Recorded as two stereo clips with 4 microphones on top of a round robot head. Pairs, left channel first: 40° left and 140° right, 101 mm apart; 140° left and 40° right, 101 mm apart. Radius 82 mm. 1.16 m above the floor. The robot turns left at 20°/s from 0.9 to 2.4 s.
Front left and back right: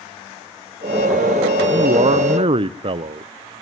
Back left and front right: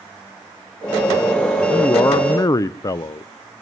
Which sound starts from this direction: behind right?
A man speaking, at 1.7 s.